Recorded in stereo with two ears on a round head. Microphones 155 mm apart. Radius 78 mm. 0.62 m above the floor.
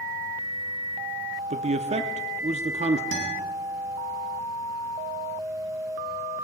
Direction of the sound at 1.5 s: 40° right (ahead or behind).